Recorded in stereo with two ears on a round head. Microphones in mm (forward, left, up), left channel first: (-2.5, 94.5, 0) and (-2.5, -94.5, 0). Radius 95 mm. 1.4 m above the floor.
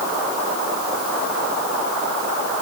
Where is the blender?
I don't hear a blender.